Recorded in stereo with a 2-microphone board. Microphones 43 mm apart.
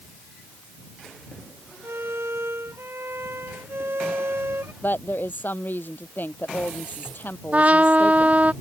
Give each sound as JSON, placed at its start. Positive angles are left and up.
{"t": 1.8, "sound": "a violin", "side_deg": -80}
{"t": 4.8, "sound": "a woman speaking", "side_deg": 50}
{"t": 7.5, "sound": "a trumpet", "side_deg": -35}